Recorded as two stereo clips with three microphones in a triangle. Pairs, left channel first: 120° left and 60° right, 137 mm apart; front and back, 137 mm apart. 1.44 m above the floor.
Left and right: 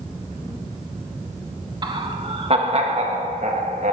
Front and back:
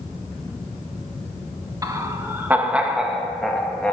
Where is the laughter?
115° right, 1.8 m; by 3.9 s 80° right, 2 m.